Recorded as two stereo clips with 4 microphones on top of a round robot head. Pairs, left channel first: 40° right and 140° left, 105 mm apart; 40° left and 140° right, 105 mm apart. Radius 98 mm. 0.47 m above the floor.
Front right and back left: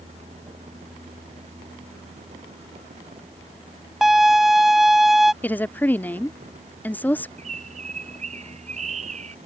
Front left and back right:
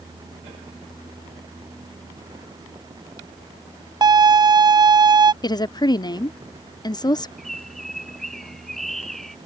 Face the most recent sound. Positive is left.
turn(degrees=130)